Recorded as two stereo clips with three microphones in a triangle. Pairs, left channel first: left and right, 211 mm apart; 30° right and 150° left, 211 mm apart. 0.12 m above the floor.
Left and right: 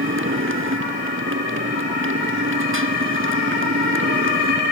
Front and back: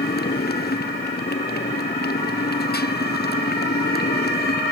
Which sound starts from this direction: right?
A motorcycle, at 0.0 s.